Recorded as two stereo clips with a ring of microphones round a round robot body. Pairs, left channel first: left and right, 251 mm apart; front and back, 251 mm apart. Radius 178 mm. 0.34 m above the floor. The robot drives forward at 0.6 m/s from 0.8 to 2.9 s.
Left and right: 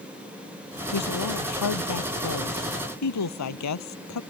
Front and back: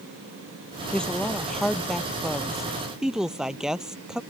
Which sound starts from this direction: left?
A woman speaking, at 0.9 s.